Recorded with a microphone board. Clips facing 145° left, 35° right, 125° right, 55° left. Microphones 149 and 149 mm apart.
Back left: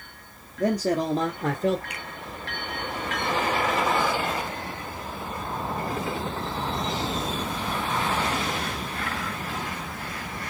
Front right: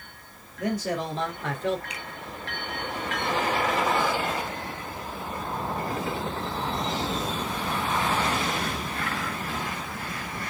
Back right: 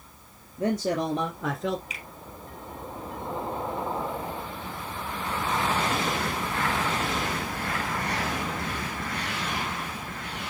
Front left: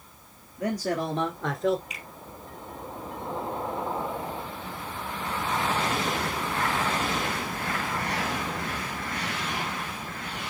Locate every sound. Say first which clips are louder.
0.6 s a man speaking: back left 5 dB, back right 2 dB; 175° right, 1.7 m; by 1.8 s 140° left, 1.4 m
1.9 s a finger snap: back left 1 dB, back right 1 dB; 150° left, 3 m